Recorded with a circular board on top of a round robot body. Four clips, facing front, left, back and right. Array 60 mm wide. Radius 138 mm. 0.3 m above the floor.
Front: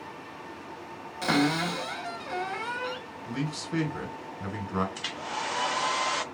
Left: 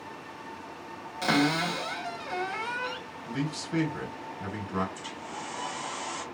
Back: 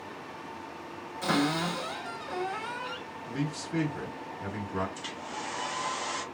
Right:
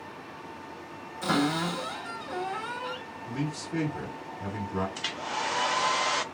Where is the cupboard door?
55° left, 2.5 m.